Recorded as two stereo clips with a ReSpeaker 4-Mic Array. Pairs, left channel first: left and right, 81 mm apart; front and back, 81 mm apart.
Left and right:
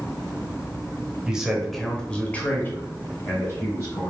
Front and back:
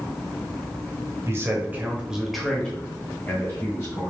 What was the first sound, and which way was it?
A man speaking, 165° right.